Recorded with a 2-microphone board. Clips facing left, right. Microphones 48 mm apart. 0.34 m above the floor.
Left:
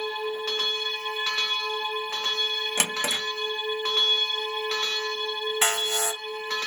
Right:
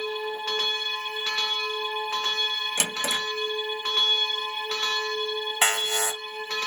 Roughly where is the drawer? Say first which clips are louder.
Left 1 dB; left.